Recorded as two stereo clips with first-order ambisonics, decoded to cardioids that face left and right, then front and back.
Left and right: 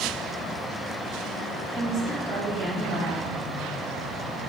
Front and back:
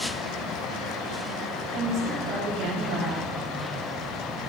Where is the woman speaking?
170° right, 1.3 m.